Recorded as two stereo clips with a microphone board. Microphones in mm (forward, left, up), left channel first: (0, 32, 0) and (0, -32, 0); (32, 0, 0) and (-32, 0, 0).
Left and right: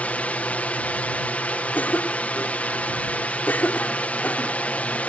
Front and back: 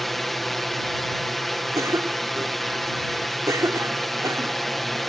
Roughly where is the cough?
Behind left.